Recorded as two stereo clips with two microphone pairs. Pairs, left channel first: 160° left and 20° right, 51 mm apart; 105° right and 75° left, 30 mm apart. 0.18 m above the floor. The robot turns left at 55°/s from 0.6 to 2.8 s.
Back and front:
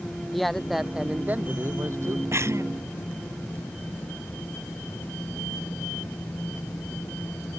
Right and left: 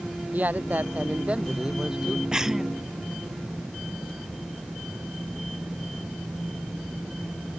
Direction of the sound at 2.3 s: 5° left.